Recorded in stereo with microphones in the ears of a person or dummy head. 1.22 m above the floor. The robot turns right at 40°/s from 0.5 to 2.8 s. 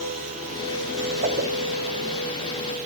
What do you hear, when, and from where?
1.2 s a whoosh: 45° right (ahead or behind), 3 m; by 1.5 s 55° right (ahead or behind), 3 m